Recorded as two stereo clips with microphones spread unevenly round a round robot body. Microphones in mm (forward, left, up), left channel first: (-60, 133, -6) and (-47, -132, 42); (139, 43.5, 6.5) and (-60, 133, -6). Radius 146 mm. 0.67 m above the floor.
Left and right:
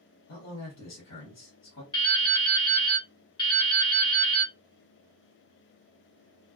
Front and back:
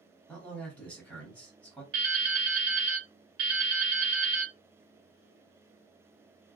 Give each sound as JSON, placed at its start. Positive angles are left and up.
{"t": 0.3, "sound": "a man speaking", "azimuth_deg": 60, "distance_m": 1.6}
{"t": 1.9, "sound": "dripping", "azimuth_deg": 160, "distance_m": 1.1}